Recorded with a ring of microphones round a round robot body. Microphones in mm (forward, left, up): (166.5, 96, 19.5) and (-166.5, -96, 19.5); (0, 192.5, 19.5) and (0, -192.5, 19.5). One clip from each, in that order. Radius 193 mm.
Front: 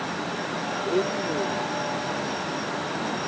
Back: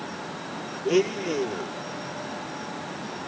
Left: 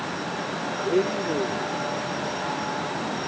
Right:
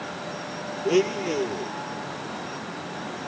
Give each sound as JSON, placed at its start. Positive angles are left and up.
{"t": 0.8, "sound": "a blender", "azimuth_deg": -115}